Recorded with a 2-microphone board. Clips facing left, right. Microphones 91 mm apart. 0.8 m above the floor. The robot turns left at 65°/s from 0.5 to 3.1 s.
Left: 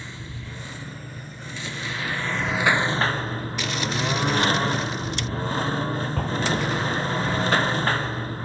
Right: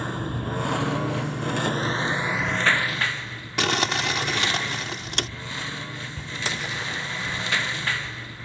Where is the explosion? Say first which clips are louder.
Left 6 dB; 60° left (ahead or behind).